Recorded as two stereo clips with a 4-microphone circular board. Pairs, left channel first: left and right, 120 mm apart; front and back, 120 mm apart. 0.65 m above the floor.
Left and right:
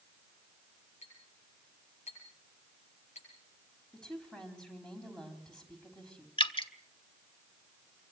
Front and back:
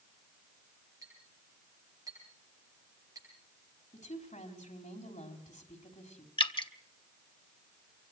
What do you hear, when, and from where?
1.0 s a clink: 120° left, 10 m
3.9 s a woman speaking: 5° left, 4.5 m
6.4 s dripping: 45° left, 1.3 m